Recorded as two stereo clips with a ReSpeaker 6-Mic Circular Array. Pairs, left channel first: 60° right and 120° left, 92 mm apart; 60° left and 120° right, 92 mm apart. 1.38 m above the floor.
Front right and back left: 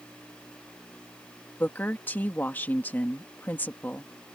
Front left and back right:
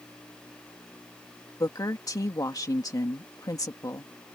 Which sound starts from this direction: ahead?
A woman speaking, at 1.6 s.